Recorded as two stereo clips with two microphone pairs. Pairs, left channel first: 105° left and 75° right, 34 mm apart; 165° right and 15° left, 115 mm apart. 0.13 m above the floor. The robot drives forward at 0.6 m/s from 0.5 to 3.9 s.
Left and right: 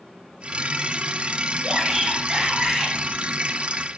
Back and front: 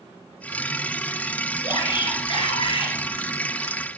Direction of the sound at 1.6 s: 140° right.